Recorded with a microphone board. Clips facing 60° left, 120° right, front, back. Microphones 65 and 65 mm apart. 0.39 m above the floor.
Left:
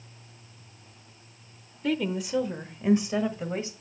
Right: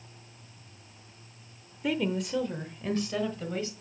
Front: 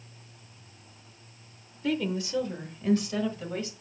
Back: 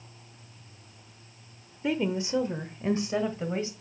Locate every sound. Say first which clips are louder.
1.8 s a woman speaking: left 1 dB, back 1 dB; 170° left, 0.8 m; by 3.7 s 125° left, 1.7 m